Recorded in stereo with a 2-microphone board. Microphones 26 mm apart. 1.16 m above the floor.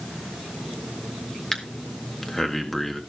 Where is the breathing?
15° left (ahead or behind), 1.7 m.